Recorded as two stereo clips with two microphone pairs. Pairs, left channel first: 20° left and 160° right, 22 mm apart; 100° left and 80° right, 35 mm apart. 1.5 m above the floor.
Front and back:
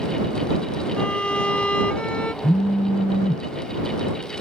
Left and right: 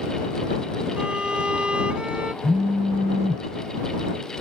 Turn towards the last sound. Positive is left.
turn(degrees=15)